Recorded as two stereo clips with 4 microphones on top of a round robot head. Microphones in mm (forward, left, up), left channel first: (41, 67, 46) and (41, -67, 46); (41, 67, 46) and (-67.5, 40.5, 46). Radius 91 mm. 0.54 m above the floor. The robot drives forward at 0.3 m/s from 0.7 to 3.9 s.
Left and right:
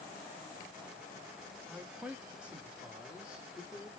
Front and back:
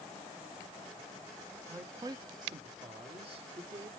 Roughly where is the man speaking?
Behind right.